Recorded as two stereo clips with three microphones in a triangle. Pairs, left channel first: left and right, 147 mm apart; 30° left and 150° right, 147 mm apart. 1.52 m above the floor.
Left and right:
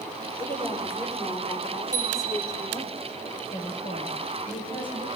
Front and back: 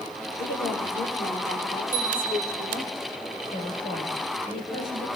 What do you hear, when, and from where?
0.4 s a woman speaking: 15° left, 6.5 m; by 2.9 s 30° left, 6 m
1.9 s a bicycle bell: 50° left, 4.5 m
3.5 s a woman speaking: 40° left, 9 m